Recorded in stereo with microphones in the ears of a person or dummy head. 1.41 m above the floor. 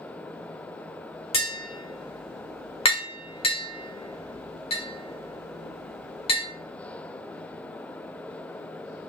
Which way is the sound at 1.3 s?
30° left (ahead or behind).